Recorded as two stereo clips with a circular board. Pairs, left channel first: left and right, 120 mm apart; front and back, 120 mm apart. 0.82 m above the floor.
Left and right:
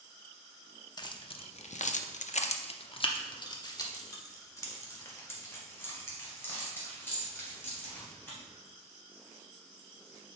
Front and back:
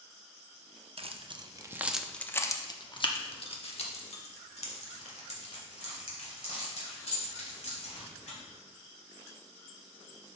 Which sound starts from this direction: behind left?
Keys jangling, at 1.0 s.